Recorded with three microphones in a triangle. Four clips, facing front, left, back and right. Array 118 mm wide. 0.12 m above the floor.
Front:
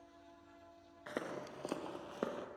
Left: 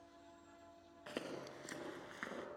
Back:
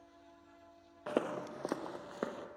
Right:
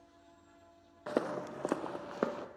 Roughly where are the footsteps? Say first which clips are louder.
Right 12 dB, back 8 dB; behind right.